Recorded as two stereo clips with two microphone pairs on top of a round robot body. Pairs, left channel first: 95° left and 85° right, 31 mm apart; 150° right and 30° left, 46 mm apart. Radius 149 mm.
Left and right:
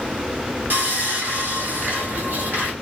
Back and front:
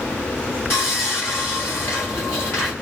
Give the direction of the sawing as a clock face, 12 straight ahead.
4 o'clock.